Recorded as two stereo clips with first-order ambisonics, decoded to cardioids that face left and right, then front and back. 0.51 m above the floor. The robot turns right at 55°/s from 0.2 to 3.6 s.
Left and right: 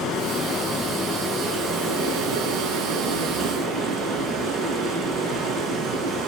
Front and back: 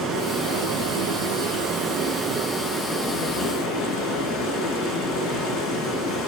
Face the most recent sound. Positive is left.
turn(degrees=-55)